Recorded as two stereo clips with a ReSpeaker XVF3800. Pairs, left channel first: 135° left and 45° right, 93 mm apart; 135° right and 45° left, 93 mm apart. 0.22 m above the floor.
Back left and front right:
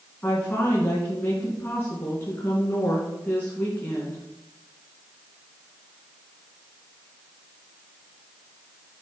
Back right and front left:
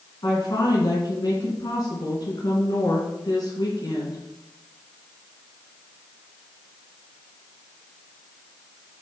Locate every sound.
0.2 s a woman speaking: 165° right, 3 m